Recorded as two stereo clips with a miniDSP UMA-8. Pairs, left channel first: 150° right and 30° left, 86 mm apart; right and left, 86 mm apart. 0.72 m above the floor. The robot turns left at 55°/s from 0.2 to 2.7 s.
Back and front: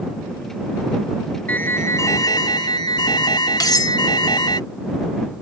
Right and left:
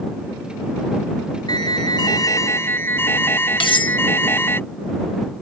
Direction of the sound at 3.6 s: 105° right.